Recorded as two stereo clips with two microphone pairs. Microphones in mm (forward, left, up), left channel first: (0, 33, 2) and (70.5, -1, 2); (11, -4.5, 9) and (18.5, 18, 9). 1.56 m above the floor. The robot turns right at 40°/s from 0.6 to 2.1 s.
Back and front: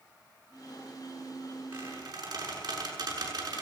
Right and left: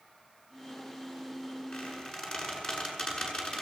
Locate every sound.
1.7 s a squeak: 80° right, 6.5 m; by 3.6 s 65° right, 6.5 m